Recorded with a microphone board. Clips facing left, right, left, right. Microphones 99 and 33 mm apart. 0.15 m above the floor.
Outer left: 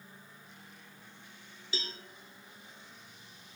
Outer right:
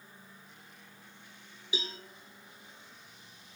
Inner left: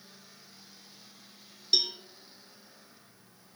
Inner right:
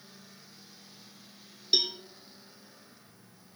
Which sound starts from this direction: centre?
A cowbell, at 1.7 s.